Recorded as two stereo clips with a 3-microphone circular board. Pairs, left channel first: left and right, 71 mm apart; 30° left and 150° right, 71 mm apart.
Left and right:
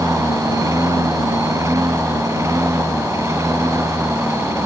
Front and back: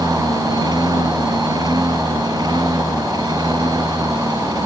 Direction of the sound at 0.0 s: 130° right.